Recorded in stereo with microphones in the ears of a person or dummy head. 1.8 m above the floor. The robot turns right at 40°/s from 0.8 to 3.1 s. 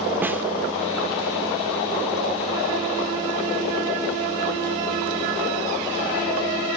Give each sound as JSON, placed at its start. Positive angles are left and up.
{"t": 0.2, "sound": "a snare drum", "side_deg": -10, "distance_m": 1.6}